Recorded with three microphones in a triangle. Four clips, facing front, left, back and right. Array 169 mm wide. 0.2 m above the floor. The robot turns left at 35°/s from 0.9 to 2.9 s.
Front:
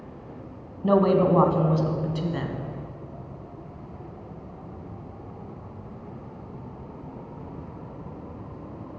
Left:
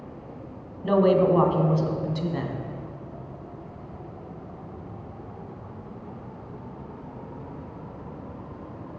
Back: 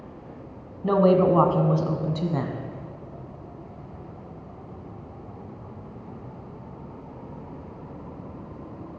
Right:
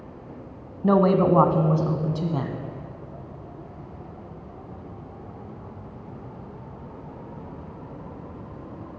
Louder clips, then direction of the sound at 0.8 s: Right 1 dB, back 1 dB; 85° right.